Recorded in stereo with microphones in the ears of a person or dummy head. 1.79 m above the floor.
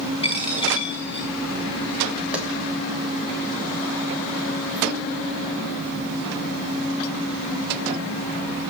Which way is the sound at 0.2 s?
25° left (ahead or behind).